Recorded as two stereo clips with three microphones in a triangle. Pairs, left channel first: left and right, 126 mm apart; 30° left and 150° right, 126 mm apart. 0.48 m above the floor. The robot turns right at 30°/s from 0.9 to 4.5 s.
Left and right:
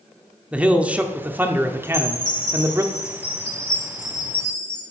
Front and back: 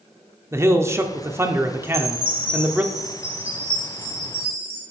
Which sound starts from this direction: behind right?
A man speaking, at 0.5 s.